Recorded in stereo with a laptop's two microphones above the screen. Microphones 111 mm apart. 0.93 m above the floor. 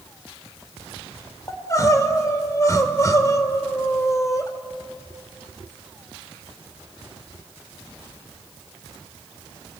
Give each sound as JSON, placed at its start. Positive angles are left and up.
{"t": 1.5, "sound": "crying", "side_deg": 30, "distance_m": 2.5}